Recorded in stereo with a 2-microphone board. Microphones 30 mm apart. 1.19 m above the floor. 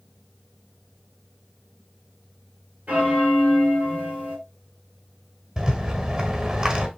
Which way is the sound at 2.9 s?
70° right (ahead or behind).